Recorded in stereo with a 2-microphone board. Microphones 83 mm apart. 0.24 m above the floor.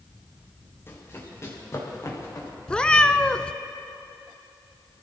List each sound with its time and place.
0.9 s running footsteps: 30° left (ahead or behind), 5 m; by 2.5 s 45° left (ahead or behind), 5.5 m
2.7 s a cat meowing: 15° left (ahead or behind), 0.6 m